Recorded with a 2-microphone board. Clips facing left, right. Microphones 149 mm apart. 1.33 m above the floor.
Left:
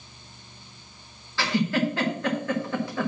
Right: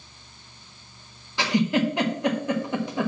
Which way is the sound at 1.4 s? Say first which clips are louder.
Right 2 dB; 20° right (ahead or behind).